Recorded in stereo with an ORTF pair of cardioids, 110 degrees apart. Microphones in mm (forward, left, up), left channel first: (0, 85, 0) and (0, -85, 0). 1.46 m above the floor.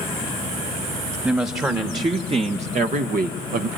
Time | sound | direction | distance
1.2 | a woman speaking | 15° right | 1.5 m